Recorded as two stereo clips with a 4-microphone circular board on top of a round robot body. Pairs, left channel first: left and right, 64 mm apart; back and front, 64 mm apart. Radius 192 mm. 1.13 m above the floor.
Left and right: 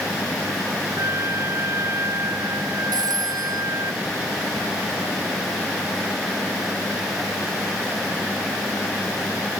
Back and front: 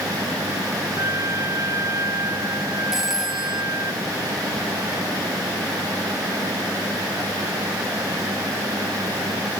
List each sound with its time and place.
1.0 s a trumpet: 45° right
2.9 s a phone ringing: 85° right